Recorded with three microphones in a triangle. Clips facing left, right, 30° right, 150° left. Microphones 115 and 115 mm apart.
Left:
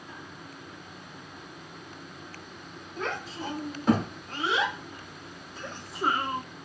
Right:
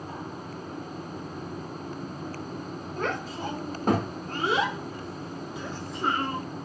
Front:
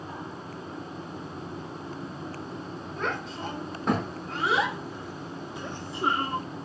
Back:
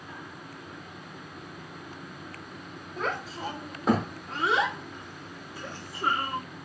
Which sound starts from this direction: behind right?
A child speaking, at 3.0 s.